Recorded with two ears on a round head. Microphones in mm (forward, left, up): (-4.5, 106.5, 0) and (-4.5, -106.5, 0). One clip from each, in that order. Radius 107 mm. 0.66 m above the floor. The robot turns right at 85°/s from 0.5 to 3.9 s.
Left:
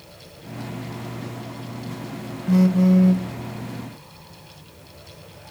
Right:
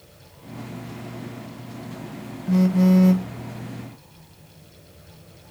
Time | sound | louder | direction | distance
2.5 | a phone buzzing | left 1 dB | 170° left | 0.7 m